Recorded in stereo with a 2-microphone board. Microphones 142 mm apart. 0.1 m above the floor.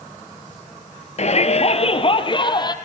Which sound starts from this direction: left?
A shout, at 1.2 s.